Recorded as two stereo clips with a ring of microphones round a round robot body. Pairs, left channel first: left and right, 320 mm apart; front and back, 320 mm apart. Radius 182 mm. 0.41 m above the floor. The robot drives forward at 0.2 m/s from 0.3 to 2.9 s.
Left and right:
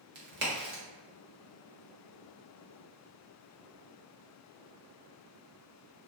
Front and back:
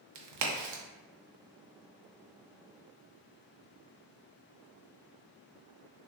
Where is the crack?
150° right, 0.7 m.